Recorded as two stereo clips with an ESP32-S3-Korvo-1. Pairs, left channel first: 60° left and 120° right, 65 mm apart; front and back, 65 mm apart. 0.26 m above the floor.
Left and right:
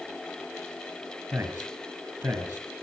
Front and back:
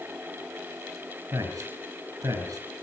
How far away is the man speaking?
About 4.5 m.